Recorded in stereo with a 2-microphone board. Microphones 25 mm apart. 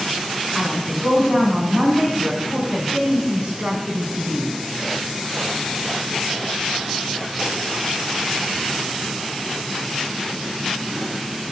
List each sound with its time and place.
0.5 s a woman speaking: 50° right (ahead or behind), 4 m